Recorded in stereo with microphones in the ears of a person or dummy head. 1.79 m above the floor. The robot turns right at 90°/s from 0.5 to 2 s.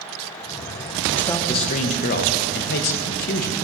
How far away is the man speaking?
About 0.6 m.